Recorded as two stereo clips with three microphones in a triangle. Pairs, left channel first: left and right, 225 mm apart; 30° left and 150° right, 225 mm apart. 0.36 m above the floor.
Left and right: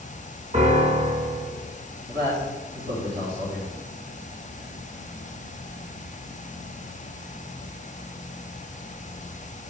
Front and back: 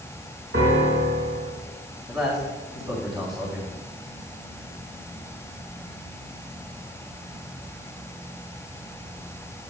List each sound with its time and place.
0.5 s a piano: 145° right, 2.5 m
2.1 s a man speaking: 85° right, 3.5 m